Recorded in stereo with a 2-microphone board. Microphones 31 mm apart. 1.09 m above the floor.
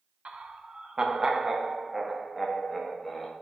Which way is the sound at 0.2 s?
45° right (ahead or behind).